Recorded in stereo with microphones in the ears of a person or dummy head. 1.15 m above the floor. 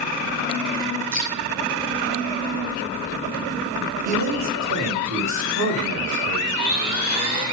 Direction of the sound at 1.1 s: 25° right (ahead or behind).